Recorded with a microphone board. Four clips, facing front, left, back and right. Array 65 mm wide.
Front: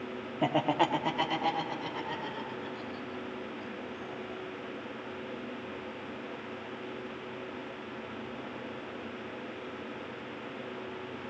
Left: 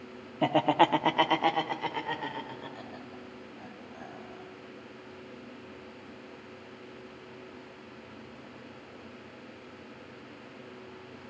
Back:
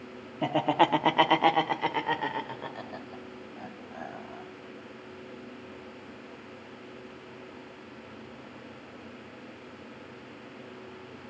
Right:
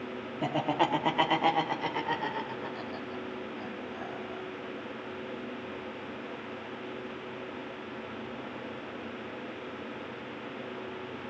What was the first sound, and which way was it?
Laughter, 75° left.